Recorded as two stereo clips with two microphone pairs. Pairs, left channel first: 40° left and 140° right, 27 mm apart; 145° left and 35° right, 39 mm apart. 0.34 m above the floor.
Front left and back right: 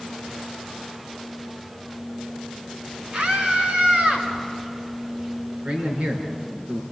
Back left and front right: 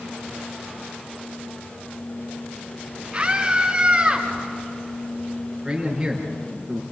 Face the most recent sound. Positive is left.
turn(degrees=-120)